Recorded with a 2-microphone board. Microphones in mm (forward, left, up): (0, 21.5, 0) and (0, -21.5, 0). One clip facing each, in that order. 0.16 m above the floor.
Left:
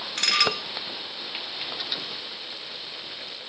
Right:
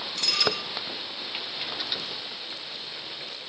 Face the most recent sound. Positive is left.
turn(degrees=60)  # may be behind; listen again after turning